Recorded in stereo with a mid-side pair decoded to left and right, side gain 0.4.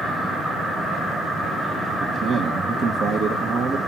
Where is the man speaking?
65° right, 1.3 m.